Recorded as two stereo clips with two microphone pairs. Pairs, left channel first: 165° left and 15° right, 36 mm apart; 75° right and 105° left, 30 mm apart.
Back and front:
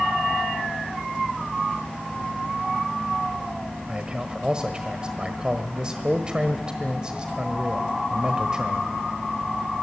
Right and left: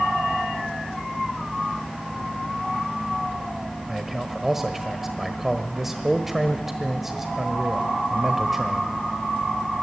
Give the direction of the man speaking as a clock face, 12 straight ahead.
11 o'clock.